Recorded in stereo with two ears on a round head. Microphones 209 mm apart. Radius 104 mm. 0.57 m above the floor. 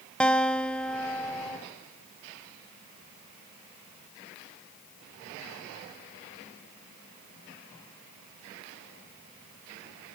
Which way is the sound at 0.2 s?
5° left (ahead or behind).